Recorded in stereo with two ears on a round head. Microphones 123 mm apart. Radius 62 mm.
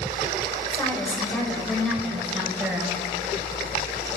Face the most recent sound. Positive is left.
turn(degrees=-5)  # may be behind; listen again after turning